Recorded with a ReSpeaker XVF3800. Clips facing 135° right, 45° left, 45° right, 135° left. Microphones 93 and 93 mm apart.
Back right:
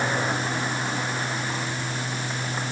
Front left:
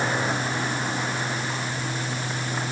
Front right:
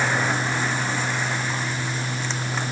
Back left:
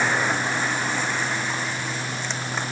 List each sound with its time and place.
Only background noise.